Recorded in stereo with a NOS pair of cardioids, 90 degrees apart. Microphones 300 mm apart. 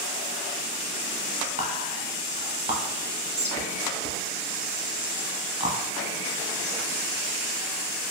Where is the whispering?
20° right, 1.0 m.